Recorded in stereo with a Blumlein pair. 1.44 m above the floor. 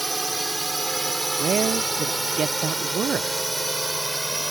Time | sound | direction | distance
0.0 | a drone | 5° right | ?
1.4 | a man speaking | 20° right | ?